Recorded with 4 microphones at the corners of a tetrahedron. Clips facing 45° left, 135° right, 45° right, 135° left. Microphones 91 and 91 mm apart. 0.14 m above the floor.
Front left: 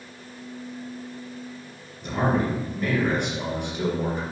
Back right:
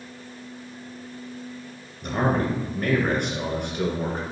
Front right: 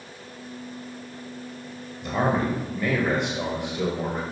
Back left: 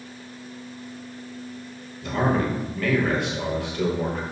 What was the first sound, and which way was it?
A man speaking, 115° right.